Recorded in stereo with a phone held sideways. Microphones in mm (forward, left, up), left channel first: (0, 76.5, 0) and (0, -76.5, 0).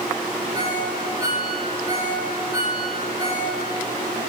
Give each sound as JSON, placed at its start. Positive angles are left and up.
{"t": 0.5, "sound": "a ringtone", "side_deg": -35, "distance_m": 6.5}